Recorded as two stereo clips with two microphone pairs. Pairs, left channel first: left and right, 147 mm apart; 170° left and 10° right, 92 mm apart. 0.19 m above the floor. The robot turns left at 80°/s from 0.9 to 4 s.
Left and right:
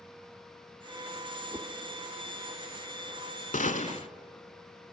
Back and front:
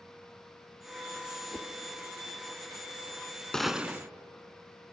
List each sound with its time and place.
1.5 s a whoosh: 130° right, 0.7 m; by 1.7 s 150° right, 0.7 m
3.5 s a gunshot: 90° left, 0.7 m; by 4.1 s 50° left, 0.7 m